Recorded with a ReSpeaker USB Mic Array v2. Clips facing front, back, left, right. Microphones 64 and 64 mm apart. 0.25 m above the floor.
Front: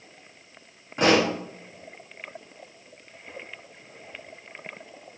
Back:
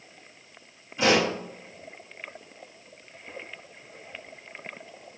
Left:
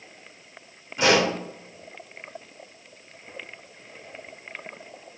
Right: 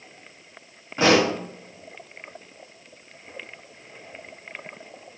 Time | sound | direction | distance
1.0 | a pop | 35° right | 4 m